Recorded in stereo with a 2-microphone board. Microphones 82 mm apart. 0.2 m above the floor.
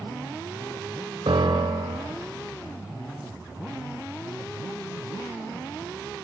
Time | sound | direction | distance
1.3 | a piano | 75° right (ahead or behind) | 1.3 m